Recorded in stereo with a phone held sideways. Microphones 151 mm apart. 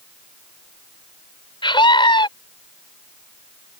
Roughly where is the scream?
Left.